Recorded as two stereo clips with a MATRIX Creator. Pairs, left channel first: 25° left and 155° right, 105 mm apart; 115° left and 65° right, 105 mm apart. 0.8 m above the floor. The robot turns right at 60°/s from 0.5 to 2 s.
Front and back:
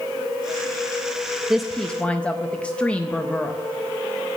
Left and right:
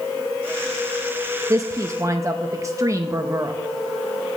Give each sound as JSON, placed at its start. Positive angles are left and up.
{"t": 1.5, "sound": "a woman speaking", "azimuth_deg": -75, "distance_m": 0.6}